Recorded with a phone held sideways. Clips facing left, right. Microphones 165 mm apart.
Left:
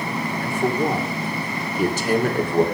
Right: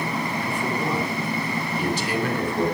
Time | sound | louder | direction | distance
0.4 | a man speaking | left 8 dB | 45° left (ahead or behind) | 2.5 m